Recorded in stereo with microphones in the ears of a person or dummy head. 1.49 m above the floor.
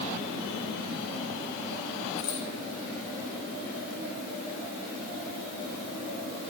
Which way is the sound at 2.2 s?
40° left (ahead or behind).